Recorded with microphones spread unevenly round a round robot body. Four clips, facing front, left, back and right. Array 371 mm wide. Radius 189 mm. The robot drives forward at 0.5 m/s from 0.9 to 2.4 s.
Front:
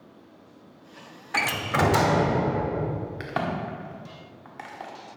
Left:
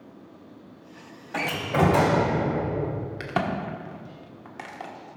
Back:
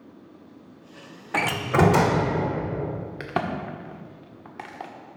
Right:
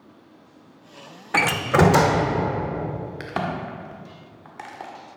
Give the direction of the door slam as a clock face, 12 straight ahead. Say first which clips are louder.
Right 5 dB, back 4 dB; 4 o'clock.